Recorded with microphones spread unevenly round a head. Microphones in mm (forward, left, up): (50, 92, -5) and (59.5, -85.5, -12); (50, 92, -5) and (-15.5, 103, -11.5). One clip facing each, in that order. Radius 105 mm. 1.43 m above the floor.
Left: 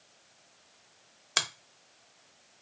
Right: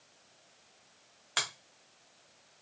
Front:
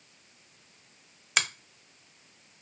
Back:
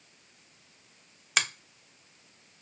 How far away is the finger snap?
About 0.7 m.